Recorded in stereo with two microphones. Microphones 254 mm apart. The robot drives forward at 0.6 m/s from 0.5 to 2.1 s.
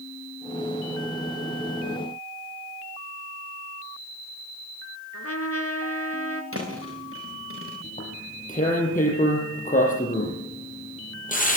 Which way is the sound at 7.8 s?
30° left (ahead or behind).